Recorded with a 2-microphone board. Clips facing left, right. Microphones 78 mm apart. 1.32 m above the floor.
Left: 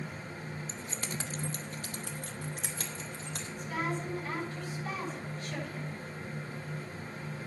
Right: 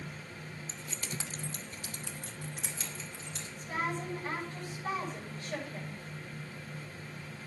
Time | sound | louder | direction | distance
0.7 | keys jangling | left 3 dB | 25° left (ahead or behind) | 0.8 m
3.6 | a woman speaking | even | 35° right (ahead or behind) | 7.5 m